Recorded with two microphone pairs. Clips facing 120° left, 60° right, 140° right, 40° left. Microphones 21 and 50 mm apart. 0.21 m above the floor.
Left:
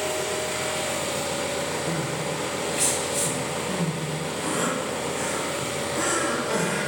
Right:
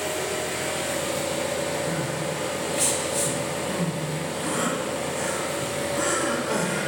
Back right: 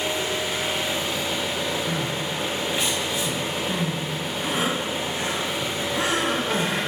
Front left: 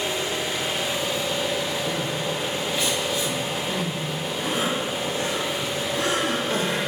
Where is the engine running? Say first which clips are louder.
Left 1 dB, back right 1 dB; 165° left, 1.4 m.